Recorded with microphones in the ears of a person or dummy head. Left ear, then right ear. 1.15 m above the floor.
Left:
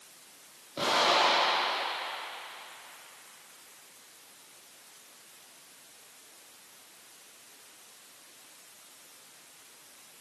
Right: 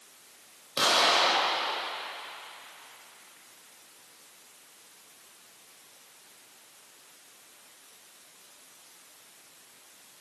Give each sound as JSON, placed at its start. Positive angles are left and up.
{"t": 0.8, "sound": "an explosion", "side_deg": -75, "distance_m": 3.0}